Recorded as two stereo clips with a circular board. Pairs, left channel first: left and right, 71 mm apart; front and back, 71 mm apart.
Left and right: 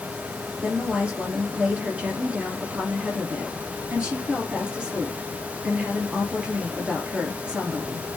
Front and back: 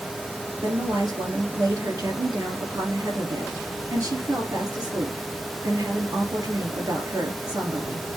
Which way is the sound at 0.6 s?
160° right.